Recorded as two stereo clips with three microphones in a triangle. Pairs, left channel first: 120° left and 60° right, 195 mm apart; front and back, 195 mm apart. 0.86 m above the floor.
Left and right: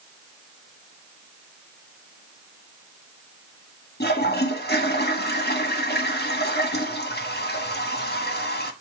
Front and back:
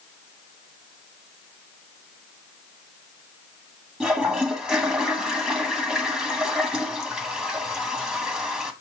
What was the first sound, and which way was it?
A toilet flushing, 95° left.